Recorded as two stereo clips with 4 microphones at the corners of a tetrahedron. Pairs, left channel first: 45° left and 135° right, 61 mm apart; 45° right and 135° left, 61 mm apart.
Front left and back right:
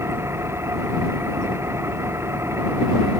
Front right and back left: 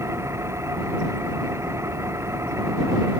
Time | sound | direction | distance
0.0 | an engine running | 175° left | ?